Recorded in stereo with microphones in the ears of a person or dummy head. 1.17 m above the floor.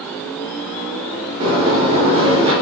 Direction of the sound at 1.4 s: 35° right (ahead or behind).